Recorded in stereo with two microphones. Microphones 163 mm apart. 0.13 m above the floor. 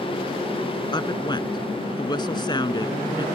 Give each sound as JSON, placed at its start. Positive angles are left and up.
{"t": 0.9, "sound": "a woman speaking", "side_deg": 30}